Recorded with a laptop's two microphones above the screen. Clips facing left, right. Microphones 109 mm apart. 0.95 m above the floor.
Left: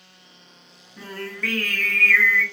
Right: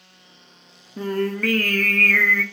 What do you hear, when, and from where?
1.0 s singing: 55° right (ahead or behind), 0.5 m